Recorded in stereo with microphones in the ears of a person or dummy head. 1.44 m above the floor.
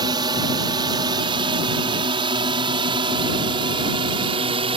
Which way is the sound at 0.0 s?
25° right (ahead or behind).